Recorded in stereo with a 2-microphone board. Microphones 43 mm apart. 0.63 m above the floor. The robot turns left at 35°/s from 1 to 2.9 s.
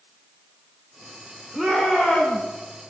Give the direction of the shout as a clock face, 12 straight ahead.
6 o'clock.